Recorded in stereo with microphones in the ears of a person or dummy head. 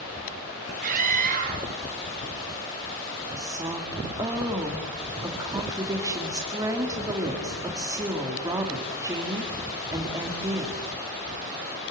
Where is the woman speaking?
15° right (ahead or behind), 3 m.